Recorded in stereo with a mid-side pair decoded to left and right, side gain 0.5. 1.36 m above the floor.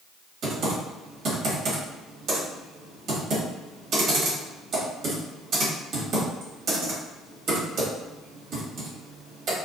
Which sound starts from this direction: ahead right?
Typing on a keyboard, at 0.4 s.